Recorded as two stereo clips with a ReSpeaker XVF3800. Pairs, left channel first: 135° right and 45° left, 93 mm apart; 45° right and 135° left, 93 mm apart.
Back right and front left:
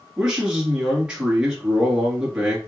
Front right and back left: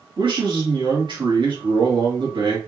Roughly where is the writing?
No writing in this recording.